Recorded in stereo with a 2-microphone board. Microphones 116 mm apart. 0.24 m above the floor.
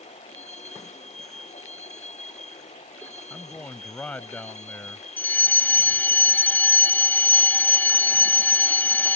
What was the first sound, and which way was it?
A vehicle, 75° left (ahead or behind).